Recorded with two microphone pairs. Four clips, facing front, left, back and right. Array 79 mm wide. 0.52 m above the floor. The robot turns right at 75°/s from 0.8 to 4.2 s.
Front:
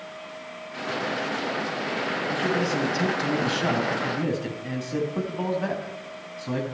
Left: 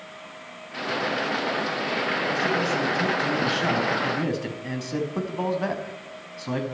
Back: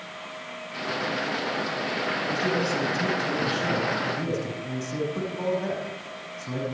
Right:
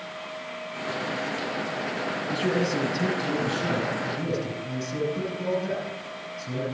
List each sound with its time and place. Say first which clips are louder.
2.3 s a man speaking: right 2 dB, front 1 dB; 65° right, 5 m; by 6.6 s 75° left, 5 m